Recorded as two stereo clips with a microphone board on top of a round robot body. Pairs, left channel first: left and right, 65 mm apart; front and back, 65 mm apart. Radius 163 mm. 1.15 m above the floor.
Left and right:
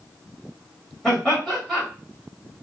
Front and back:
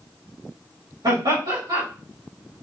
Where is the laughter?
175° left, 3 m.